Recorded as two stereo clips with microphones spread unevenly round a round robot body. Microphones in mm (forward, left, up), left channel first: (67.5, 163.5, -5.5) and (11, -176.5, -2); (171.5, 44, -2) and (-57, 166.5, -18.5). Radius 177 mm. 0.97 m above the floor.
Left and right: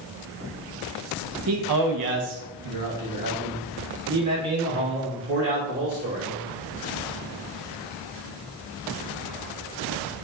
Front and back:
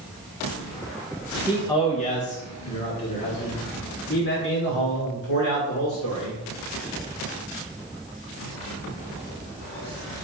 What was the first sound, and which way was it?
A man speaking, 125° right.